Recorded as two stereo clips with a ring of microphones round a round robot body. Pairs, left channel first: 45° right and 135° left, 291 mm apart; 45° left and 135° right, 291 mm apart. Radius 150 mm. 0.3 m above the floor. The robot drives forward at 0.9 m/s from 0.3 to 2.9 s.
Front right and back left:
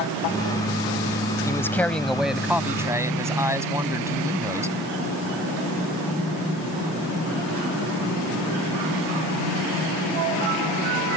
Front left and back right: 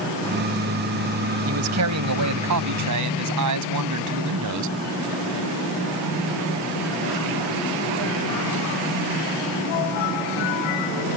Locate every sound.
1.5 s a man speaking: 120° right; by 4.8 s 145° right